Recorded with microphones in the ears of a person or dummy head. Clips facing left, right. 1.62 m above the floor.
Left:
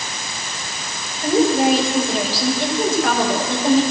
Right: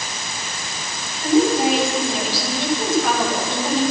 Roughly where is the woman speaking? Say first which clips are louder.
Left 1 dB; left.